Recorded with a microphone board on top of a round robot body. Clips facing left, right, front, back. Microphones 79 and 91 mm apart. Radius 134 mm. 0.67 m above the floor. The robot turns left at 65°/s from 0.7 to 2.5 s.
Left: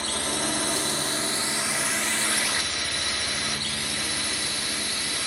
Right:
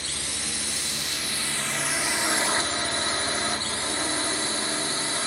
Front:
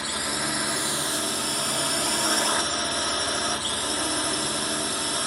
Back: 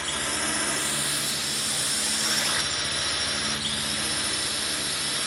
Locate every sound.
0.0 s a drone: 75° left; by 5.3 s 40° right